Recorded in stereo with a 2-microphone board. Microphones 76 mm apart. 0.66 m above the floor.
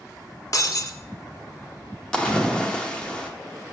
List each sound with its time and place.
0.5 s breaking glass: 50° left (ahead or behind), 0.5 m
2.1 s a splash: 10° left (ahead or behind), 0.7 m